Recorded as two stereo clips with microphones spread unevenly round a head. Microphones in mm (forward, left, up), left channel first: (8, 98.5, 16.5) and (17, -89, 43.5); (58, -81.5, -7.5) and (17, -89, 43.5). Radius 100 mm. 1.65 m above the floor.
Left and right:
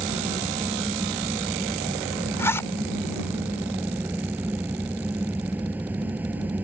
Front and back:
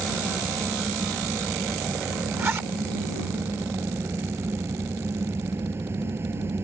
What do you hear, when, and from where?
0.0 s a fan: 170° right
2.4 s a zipper: 175° left